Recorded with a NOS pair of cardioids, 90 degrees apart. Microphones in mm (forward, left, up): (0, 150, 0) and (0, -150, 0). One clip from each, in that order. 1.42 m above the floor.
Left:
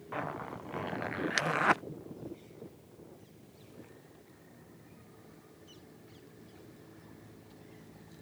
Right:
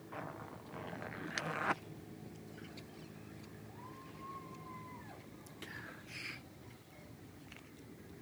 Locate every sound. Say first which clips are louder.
0.1 s a zipper: left 9 dB; 35° left